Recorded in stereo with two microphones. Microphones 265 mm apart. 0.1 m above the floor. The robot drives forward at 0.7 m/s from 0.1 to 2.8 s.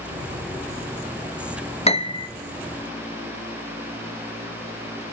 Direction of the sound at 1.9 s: 25° left (ahead or behind).